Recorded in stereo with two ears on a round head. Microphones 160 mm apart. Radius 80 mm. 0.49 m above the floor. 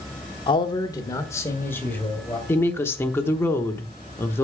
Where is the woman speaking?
15° left (ahead or behind), 0.9 m.